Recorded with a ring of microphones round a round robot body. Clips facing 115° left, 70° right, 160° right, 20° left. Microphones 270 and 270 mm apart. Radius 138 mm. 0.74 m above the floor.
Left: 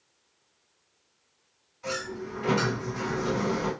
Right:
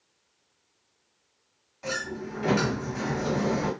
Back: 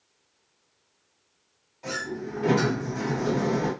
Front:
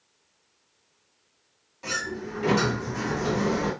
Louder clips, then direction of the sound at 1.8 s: Even, back 1 dB; 50° right.